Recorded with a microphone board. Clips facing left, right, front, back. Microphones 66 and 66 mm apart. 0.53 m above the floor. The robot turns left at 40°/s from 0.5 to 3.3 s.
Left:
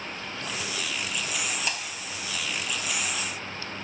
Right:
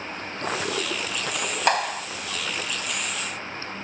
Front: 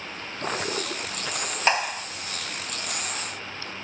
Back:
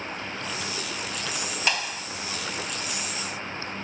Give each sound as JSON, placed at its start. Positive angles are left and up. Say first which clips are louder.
{"t": 0.2, "sound": "a toilet flushing", "louder": "right 9 dB, front 2 dB", "azimuth_deg": -45}
{"t": 1.7, "sound": "a clap", "louder": "right 11 dB, front 6 dB", "azimuth_deg": -60}